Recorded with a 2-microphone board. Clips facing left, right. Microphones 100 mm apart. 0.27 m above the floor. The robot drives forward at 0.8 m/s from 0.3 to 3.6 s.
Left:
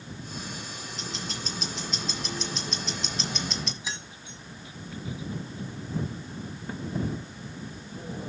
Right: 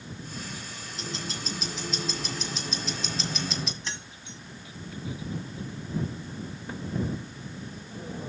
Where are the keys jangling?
5° left (ahead or behind), 1.2 m.